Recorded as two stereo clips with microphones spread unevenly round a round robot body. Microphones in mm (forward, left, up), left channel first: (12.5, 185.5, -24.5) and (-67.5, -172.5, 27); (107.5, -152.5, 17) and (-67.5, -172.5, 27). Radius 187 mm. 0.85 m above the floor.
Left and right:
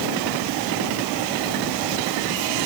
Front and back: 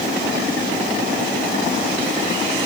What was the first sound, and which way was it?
Only background noise.